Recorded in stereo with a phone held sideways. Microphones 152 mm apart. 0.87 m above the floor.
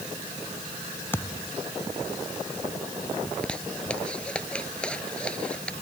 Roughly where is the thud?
Centre.